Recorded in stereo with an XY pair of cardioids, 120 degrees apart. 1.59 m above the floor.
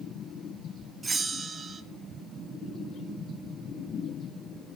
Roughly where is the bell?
Ahead right.